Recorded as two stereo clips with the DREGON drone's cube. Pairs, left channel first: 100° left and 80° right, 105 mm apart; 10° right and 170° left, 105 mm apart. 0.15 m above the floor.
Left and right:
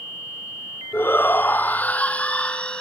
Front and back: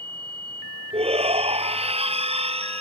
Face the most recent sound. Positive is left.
turn(degrees=180)